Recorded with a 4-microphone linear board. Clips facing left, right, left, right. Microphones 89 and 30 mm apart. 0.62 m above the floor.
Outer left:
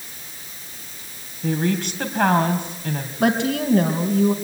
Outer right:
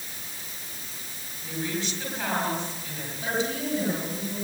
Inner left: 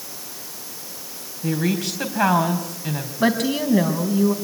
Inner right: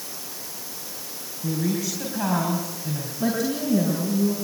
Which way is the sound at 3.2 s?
80° left.